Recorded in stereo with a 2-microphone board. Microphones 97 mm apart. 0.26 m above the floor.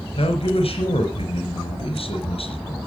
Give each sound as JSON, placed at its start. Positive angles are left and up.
{"t": 0.2, "sound": "a man speaking", "side_deg": 75, "distance_m": 3.5}